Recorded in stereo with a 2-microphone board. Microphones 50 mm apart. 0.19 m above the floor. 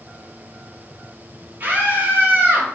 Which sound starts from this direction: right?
A scream, at 1.6 s.